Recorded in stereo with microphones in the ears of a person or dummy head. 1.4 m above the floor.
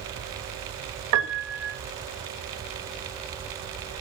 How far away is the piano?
About 1.6 m.